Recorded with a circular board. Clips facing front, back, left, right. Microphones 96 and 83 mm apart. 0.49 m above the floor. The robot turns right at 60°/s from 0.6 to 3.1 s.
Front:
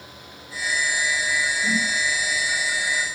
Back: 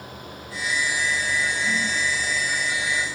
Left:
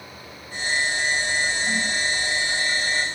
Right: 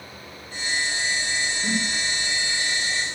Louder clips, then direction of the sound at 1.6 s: Front 1 dB, left 1 dB; 55° right.